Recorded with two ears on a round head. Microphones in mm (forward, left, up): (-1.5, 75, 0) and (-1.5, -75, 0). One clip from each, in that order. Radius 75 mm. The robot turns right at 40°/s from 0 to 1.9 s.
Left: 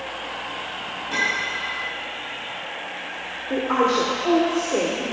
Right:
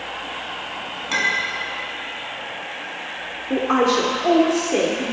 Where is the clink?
60° right (ahead or behind), 4.5 m; by 1.5 s 75° right (ahead or behind), 4.5 m.